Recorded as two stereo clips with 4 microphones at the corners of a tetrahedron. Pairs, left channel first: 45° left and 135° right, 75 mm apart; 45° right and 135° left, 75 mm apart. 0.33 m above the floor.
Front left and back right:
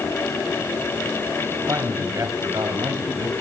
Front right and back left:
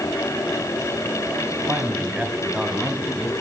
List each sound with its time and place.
1.7 s a man speaking: 165° right, 2 m; by 3.3 s 135° right, 2 m